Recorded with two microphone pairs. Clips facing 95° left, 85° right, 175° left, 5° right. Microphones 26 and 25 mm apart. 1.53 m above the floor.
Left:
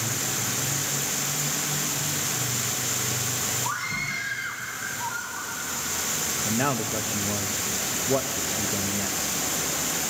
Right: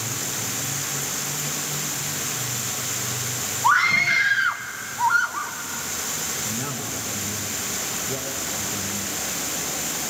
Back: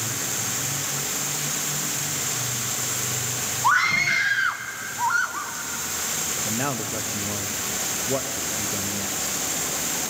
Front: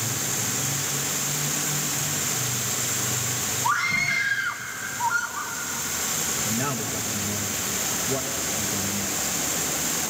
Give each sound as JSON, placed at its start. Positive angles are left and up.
{"t": 3.6, "sound": "a scream", "azimuth_deg": -125, "distance_m": 1.5}
{"t": 6.5, "sound": "a man speaking", "azimuth_deg": 125, "distance_m": 1.0}